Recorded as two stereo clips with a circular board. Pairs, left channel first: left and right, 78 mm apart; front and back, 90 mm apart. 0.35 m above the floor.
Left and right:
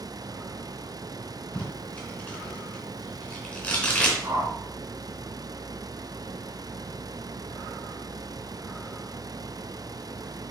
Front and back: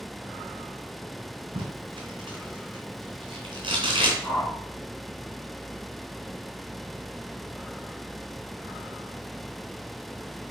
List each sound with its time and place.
1.6 s tape being pulled: 160° left, 2.5 m
4.2 s a whoosh: 55° right, 1.1 m